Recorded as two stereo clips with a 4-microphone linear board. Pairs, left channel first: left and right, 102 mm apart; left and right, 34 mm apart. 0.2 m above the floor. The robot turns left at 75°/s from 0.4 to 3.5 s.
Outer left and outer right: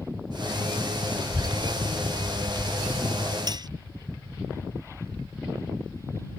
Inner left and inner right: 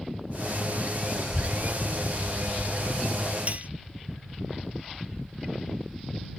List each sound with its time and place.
1.2 s a child speaking: 40° right (ahead or behind); by 3.4 s 45° left (ahead or behind)
3.5 s cutlery clinking: 40° right (ahead or behind); by 3.7 s 45° right (ahead or behind)